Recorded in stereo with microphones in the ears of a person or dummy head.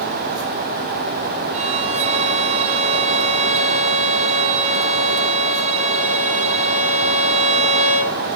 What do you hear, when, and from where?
1.5 s a violin: 35° right (ahead or behind), 2.5 m